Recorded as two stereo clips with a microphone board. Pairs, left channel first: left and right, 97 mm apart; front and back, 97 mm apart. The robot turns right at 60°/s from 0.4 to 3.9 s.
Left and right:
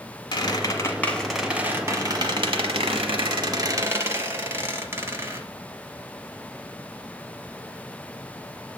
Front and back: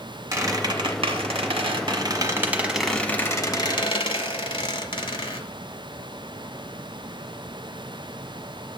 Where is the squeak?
125° left, 1.0 m; by 5.4 s 25° right, 1.0 m.